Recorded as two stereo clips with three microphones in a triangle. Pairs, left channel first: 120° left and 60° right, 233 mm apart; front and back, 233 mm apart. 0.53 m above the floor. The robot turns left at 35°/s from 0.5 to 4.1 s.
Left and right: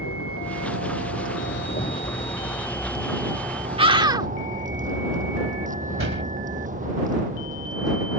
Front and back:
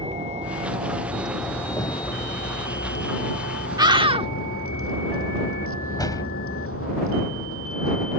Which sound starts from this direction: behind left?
A vehicle, at 0.0 s.